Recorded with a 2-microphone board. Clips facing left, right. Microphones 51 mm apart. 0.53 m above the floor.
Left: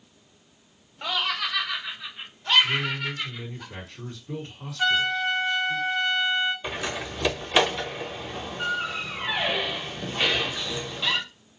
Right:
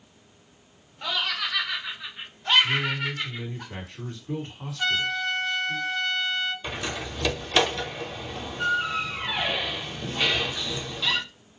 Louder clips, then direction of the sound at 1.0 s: Left 1 dB; 15° left (ahead or behind).